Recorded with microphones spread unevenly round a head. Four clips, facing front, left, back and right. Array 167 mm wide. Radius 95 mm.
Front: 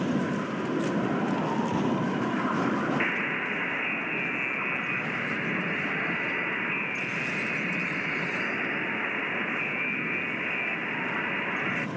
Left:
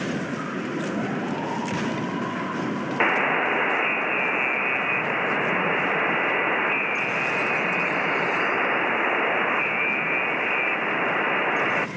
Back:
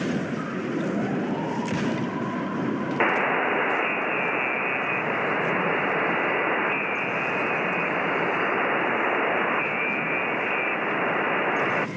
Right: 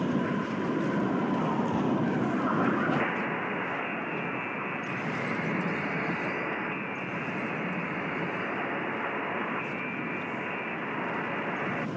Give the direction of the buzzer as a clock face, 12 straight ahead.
8 o'clock.